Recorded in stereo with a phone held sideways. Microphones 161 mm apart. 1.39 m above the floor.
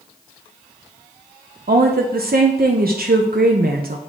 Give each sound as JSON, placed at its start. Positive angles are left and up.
{"t": 1.7, "sound": "a woman speaking", "side_deg": -70, "distance_m": 0.6}